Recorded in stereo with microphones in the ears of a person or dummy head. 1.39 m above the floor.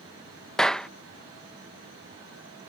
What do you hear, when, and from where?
0.6 s a clap: centre (ahead or behind)